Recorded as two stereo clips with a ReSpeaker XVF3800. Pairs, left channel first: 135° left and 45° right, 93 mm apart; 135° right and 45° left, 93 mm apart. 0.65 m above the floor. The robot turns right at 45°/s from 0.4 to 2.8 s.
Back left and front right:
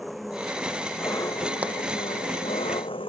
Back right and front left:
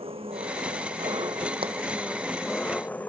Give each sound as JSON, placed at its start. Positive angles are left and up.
{"t": 0.0, "sound": "an engine running", "azimuth_deg": 45}
{"t": 1.6, "sound": "a pop", "azimuth_deg": 30}